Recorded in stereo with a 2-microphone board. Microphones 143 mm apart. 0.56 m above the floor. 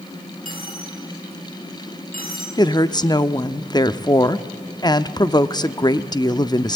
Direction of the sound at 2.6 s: 30° left (ahead or behind).